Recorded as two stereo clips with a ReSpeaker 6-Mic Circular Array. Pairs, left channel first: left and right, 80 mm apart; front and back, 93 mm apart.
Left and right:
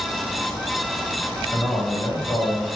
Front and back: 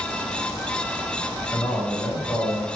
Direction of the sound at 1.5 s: 85° left.